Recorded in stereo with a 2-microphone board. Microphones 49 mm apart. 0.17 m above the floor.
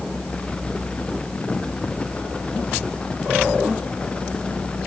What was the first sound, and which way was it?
Only background noise.